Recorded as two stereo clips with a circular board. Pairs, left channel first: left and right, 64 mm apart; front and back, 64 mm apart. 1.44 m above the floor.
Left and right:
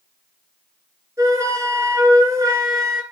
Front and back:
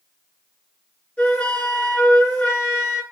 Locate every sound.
1.2 s a flute: 65° right, 3 m